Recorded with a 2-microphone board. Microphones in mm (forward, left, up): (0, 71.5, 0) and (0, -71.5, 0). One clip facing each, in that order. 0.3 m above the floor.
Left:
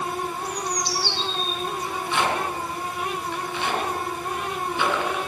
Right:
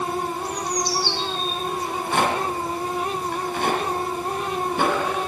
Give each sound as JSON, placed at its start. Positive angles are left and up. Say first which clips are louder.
{"t": 0.5, "sound": "a bird", "louder": "right 2 dB", "side_deg": -60, "distance_m": 2.5}
{"t": 1.8, "sound": "a rattle", "louder": "right 2 dB", "side_deg": -50, "distance_m": 2.5}